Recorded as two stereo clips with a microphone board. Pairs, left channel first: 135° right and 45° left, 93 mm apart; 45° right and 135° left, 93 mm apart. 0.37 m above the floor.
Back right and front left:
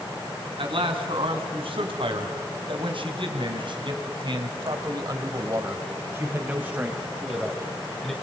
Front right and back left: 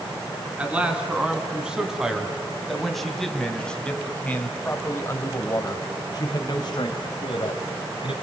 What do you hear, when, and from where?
0.6 s a man speaking: 60° left, 4 m; by 8.1 s 45° right, 2.5 m